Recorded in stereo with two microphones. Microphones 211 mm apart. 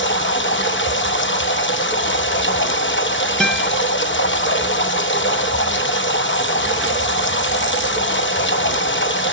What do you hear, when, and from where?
0.0 s running water: 65° left (ahead or behind), 1.0 m
3.4 s a guitar: centre (ahead or behind), 1.3 m